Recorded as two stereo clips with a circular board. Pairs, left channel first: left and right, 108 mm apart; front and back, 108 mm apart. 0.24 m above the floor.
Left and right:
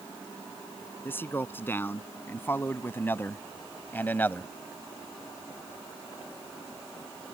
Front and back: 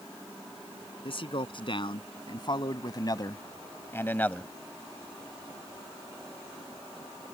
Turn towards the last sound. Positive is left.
turn(degrees=60)